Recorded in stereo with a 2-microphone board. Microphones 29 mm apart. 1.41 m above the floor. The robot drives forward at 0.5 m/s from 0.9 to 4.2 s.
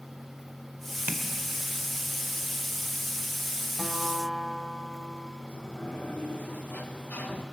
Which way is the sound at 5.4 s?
85° left.